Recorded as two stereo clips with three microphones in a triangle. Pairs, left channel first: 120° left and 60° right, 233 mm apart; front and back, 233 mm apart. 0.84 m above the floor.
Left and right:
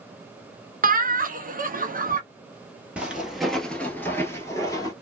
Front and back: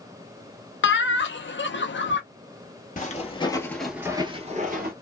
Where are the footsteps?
20° left, 1.0 m; by 4.9 s 170° right, 1.0 m.